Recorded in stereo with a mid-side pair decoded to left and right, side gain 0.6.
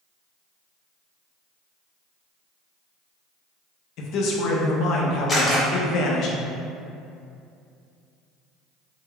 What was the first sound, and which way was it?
A man speaking, 65° left.